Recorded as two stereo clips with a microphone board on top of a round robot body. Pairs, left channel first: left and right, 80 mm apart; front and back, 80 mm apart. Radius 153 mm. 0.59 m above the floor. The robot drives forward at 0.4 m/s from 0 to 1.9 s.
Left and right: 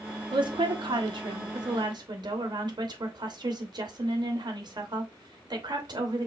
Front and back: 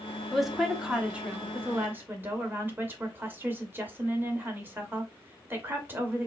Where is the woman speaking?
90° right, 1.4 m; by 6.3 s 115° right, 1.6 m.